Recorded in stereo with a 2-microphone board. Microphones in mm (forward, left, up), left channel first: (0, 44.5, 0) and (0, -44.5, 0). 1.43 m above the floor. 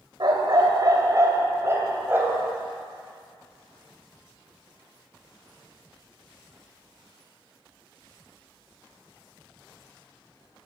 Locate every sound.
0.2 s a dog barking: 55° right (ahead or behind), 2 m; by 2.5 s 20° right (ahead or behind), 3 m